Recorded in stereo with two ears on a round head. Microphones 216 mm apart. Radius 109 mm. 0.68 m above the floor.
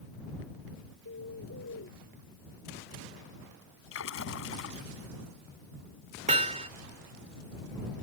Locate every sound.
1.1 s a bird: 55° left (ahead or behind)
3.9 s a splash: 55° left (ahead or behind)
6.3 s hammering: 25° right (ahead or behind)